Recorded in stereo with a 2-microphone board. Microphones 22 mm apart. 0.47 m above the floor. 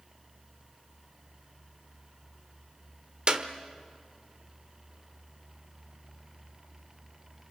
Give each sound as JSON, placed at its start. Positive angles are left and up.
{"t": 3.3, "sound": "a clap", "side_deg": -35, "distance_m": 1.4}